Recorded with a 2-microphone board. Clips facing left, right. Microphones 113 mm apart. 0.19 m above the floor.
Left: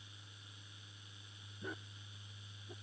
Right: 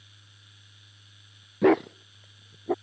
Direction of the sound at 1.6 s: 90° right.